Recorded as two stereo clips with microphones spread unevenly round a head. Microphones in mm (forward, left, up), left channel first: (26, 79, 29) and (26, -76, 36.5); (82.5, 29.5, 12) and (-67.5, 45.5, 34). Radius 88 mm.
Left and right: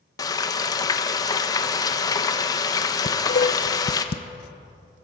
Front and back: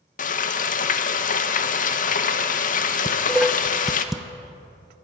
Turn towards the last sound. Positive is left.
turn(degrees=95)